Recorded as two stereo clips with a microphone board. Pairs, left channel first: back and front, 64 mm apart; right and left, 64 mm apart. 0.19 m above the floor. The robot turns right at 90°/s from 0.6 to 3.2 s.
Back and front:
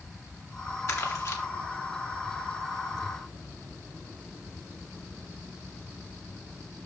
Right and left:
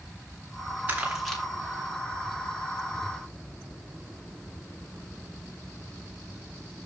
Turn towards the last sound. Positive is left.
turn(degrees=-5)